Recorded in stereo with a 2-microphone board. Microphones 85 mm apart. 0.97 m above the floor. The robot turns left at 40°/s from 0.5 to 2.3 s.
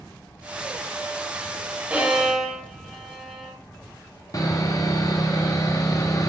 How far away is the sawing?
About 1.4 m.